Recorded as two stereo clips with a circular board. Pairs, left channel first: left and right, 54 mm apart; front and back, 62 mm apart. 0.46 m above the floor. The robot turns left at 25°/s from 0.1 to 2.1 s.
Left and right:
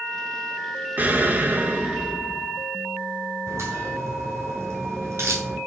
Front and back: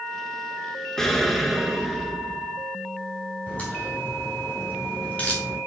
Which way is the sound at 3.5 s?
70° right.